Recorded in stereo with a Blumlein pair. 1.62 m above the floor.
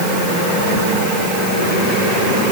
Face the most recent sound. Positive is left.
No sound to turn to.